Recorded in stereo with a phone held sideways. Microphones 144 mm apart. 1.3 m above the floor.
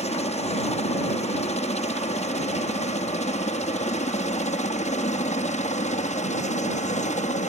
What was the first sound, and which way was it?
A helicopter, 50° left (ahead or behind).